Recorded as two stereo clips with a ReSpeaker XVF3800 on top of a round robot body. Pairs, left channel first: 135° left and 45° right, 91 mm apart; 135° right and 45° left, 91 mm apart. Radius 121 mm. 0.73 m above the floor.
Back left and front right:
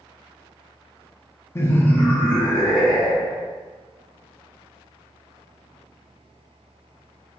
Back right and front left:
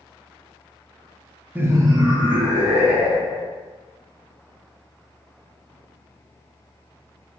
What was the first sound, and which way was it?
Laughter, 100° left.